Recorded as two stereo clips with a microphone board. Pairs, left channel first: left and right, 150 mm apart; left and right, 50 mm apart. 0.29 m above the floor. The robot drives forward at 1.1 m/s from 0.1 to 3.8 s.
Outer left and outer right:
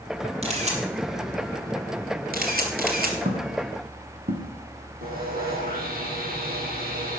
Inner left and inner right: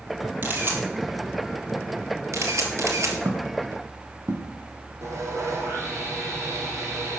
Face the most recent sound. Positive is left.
turn(degrees=-80)